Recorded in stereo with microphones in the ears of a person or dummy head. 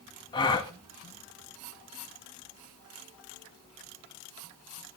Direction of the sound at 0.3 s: 20° left (ahead or behind).